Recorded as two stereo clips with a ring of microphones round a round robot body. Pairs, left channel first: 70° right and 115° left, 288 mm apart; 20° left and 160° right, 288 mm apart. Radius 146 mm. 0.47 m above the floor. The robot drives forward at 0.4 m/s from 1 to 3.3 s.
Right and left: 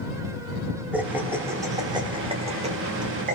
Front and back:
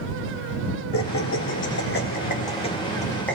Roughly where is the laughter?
Ahead left.